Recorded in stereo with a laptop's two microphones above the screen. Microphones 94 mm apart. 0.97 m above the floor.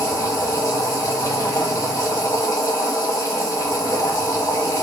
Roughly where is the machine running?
Left.